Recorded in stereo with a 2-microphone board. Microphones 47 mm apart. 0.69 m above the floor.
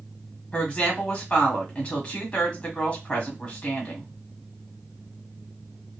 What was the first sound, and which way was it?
A woman speaking, 20° left (ahead or behind).